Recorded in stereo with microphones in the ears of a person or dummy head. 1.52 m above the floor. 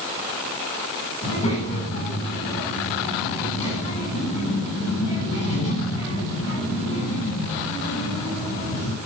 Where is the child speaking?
40° left (ahead or behind), 9.5 m.